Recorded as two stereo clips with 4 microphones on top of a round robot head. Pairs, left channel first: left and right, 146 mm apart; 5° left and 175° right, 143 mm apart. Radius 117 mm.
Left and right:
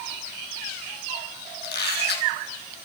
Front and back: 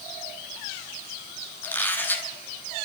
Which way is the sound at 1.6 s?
80° left.